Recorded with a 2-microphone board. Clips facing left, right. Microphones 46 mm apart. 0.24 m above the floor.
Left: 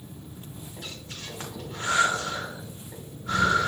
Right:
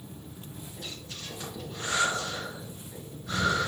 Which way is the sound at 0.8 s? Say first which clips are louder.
Left 2 dB; 50° left (ahead or behind).